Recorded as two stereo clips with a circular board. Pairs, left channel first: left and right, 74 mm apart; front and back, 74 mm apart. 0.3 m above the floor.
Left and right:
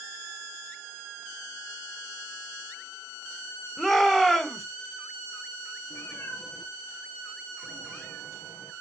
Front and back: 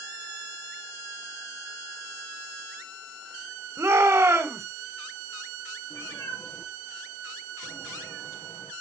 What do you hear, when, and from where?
3.8 s a shout: straight behind, 1.9 m
5.9 s a cat meowing: 35° left, 3 m